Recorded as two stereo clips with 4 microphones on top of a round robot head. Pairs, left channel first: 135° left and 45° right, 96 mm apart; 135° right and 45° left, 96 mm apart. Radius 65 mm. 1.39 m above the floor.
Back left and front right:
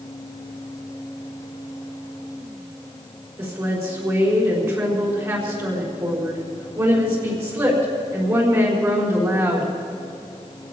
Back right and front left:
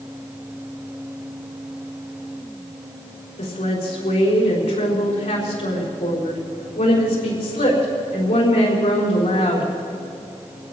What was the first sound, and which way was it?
A woman speaking, 105° right.